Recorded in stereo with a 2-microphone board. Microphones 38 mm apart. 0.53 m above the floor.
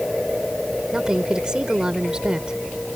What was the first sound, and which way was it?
A woman speaking, 20° right (ahead or behind).